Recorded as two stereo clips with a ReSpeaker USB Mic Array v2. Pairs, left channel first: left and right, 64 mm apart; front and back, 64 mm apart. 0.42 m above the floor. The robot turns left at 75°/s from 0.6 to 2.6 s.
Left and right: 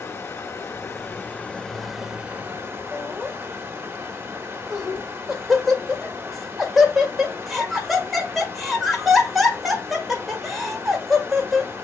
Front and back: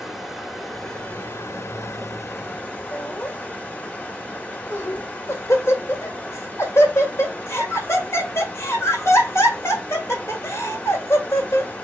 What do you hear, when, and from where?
0.0 s running water: 100° left, 1.3 m; by 11.8 s 50° right, 1.3 m
2.9 s laughter: straight ahead, 1.4 m